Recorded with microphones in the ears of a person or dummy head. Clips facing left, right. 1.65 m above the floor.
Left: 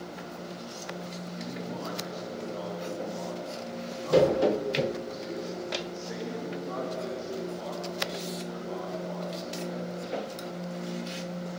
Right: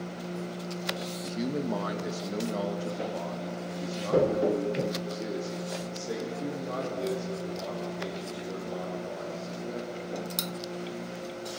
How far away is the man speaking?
About 2 m.